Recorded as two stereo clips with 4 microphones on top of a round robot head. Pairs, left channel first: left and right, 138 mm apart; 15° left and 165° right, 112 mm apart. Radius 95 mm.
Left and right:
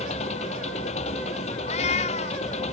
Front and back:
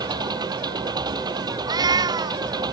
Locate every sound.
0.0 s an engine running: 140° left
1.6 s a cat meowing: 140° left